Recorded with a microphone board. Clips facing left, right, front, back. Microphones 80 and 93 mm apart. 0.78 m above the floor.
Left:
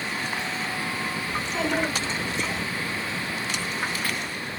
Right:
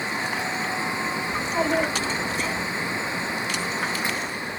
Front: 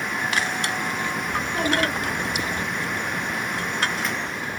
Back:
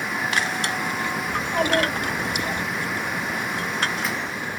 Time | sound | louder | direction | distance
1.3 | a child speaking | right 3 dB, back 3 dB | 145° right | 5 m